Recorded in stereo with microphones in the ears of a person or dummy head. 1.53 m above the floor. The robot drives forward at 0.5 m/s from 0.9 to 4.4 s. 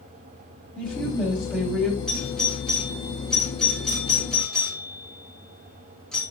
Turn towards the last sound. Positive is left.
turn(degrees=5)  # may be behind; listen again after turning